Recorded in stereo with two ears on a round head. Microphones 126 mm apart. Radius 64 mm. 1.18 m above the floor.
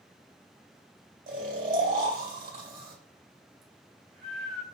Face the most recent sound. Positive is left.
turn(degrees=-70)  # may be behind; listen again after turning